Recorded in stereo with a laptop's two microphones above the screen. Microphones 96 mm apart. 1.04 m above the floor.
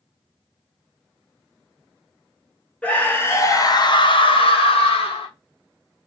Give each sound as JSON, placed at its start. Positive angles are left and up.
{"t": 2.8, "sound": "a scream", "side_deg": 15, "distance_m": 0.9}